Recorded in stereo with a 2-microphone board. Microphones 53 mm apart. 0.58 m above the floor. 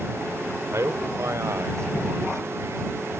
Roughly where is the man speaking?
Right.